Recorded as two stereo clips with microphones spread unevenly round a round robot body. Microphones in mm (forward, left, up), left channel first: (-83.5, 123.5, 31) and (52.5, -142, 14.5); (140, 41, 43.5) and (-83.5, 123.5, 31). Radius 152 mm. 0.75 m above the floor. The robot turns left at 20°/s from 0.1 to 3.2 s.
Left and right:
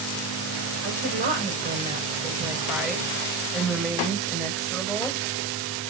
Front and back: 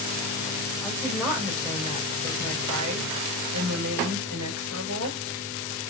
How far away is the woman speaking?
About 3.5 m.